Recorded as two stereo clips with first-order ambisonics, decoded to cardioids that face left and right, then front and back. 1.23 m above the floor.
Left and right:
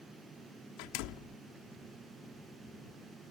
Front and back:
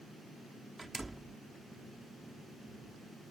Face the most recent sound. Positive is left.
turn(degrees=95)